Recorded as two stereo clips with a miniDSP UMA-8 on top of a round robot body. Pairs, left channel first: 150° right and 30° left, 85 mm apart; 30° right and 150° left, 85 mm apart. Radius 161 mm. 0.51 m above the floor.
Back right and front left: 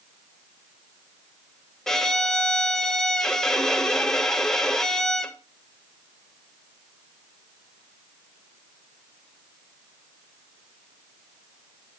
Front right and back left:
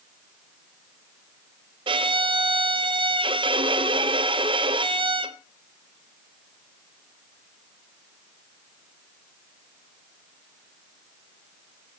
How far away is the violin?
About 0.7 m.